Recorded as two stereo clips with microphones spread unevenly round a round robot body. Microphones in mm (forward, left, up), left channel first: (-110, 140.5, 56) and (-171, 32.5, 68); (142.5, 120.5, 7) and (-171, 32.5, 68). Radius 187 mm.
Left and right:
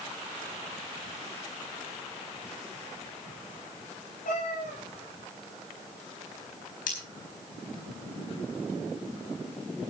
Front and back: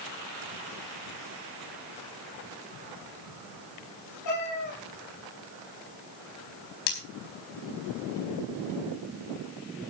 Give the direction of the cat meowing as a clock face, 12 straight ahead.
10 o'clock.